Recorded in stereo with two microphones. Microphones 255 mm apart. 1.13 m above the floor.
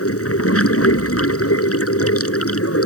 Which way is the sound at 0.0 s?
70° left (ahead or behind).